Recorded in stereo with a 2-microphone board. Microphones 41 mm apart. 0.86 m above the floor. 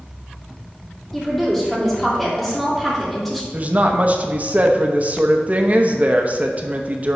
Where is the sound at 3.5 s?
35° right (ahead or behind), 0.9 m.